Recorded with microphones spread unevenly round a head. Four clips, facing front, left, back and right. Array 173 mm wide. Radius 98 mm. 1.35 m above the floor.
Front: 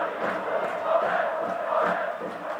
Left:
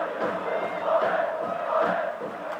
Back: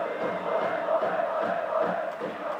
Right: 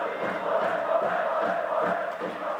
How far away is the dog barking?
No dog barking in this recording.